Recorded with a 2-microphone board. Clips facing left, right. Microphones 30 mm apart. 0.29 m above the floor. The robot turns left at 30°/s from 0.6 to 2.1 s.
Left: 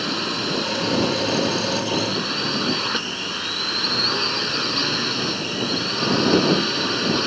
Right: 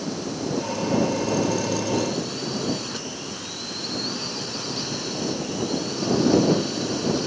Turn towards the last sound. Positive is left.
turn(degrees=55)